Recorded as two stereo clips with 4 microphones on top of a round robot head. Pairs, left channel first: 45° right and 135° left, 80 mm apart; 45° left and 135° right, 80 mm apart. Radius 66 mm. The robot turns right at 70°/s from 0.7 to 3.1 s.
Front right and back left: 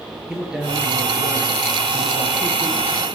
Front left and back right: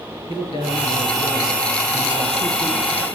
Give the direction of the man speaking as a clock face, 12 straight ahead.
10 o'clock.